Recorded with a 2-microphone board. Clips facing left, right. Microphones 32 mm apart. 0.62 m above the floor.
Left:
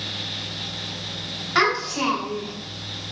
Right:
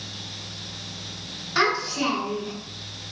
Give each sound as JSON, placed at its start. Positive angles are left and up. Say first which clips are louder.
{"t": 1.6, "sound": "a child speaking", "louder": "left 2 dB", "side_deg": 50, "distance_m": 1.7}